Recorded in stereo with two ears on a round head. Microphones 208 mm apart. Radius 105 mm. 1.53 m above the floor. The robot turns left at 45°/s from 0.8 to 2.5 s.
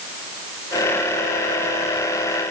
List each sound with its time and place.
Only background noise.